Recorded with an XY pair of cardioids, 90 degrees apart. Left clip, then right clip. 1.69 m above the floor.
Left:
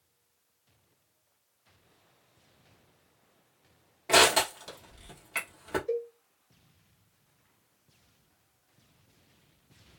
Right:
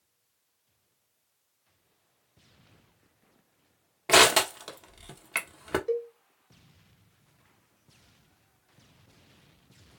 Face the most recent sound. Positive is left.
turn(degrees=-60)